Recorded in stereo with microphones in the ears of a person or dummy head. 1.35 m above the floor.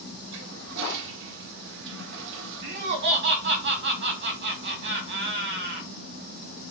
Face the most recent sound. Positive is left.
turn(degrees=-55)  # may be behind; listen again after turning